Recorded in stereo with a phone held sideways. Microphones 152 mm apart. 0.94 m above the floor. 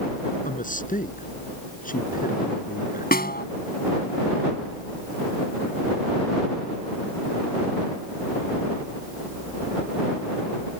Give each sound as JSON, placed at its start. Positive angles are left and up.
{"t": 0.5, "sound": "a man speaking", "side_deg": 60}
{"t": 3.1, "sound": "a snare drum", "side_deg": 75}